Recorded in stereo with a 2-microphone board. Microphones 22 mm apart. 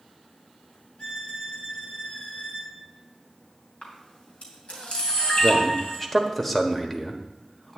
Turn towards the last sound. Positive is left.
turn(degrees=15)  # may be behind; listen again after turning